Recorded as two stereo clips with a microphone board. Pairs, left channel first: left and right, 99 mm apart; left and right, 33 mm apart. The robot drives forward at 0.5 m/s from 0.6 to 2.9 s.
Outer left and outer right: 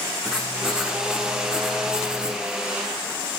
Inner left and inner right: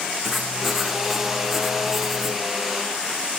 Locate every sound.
0.2 s writing: 5° right (ahead or behind), 7.5 m; by 2.4 s 10° right (ahead or behind), 6.5 m